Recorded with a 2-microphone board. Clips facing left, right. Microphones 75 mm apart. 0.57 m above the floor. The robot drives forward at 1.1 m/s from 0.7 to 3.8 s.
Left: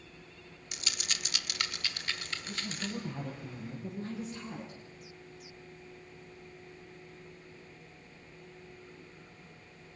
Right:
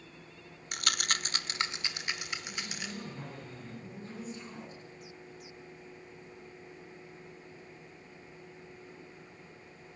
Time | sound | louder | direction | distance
0.7 | a rattle | right 7 dB | 50° right (ahead or behind) | 0.5 m
2.5 | a woman speaking | left 2 dB | 70° left (ahead or behind) | 10 m